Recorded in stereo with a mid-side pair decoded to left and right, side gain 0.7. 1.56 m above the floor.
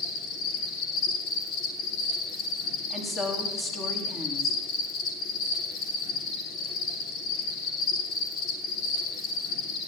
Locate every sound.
0.0 s an insect: 55° left, 3 m
2.9 s a woman speaking: 20° left, 3 m